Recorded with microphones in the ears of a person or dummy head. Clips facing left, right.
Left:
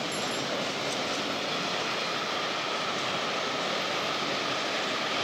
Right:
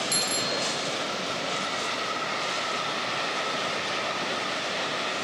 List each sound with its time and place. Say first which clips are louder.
0.1 s a bicycle bell: right 1 dB; 80° right